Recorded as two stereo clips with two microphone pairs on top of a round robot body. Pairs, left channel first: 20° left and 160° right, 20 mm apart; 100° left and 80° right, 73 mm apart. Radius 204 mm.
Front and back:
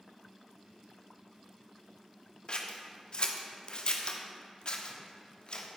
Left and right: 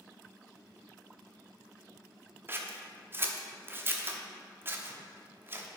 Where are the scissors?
15° right, 1.1 m.